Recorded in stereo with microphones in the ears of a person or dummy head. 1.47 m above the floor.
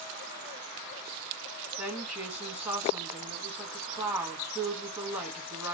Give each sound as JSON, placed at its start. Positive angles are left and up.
{"t": 1.8, "sound": "a woman speaking", "side_deg": -5, "distance_m": 1.9}